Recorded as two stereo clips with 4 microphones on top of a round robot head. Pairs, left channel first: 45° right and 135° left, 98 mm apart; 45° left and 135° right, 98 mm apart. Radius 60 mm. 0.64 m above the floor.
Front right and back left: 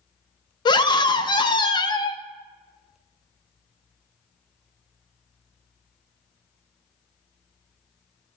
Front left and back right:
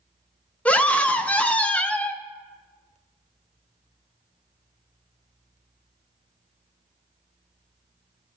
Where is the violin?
No violin in this recording.